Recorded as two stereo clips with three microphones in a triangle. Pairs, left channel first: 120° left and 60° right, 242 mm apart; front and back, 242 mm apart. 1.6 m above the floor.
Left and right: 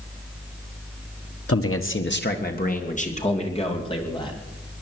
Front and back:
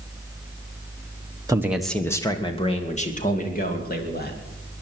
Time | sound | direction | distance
1.5 | a man speaking | 105° left | 1.3 m